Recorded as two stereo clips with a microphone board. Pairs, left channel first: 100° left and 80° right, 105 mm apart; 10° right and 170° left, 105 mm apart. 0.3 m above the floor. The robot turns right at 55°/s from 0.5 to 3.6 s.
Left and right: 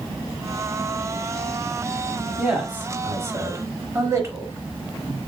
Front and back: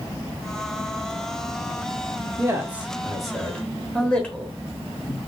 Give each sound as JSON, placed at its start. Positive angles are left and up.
{"t": 2.4, "sound": "a man speaking", "azimuth_deg": -150, "distance_m": 1.1}